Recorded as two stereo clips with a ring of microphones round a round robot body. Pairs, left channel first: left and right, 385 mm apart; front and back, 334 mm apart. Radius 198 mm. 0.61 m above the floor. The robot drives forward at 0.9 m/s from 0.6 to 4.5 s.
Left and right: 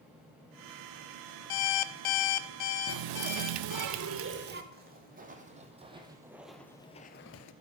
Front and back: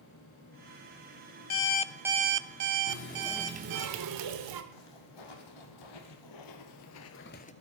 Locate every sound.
1.5 s an alarm clock: 50° left, 0.7 m; by 3.9 s 160° left, 1.8 m
2.9 s a running tap: 45° right, 0.7 m; by 4.6 s 155° right, 1.1 m
4.7 s footsteps: 25° right, 2 m; by 7.5 s 60° left, 0.7 m